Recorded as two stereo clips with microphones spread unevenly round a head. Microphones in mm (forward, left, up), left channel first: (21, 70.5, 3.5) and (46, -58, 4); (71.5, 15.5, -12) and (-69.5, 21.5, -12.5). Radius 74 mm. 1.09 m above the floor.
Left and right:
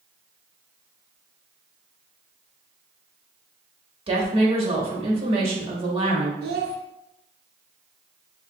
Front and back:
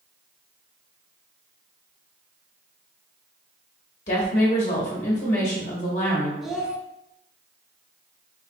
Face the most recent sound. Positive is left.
turn(degrees=-95)